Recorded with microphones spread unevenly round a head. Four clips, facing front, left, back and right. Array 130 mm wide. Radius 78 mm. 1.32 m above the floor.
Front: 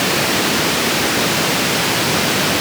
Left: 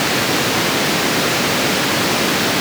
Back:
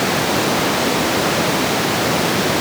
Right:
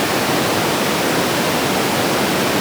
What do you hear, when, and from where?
Only background noise.